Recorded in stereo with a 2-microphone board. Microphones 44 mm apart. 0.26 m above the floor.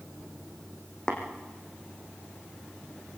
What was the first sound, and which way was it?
Tapping, 15° left (ahead or behind).